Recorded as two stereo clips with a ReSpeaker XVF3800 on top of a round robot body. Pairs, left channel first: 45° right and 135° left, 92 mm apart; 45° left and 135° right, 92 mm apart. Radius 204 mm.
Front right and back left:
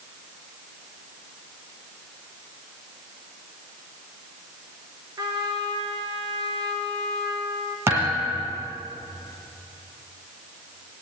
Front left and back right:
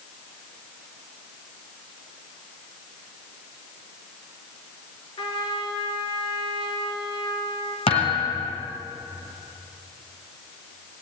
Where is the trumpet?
80° left, 3.5 m.